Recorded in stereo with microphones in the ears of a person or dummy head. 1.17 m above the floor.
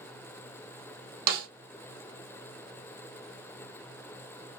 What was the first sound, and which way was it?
A snare drum, 50° right (ahead or behind).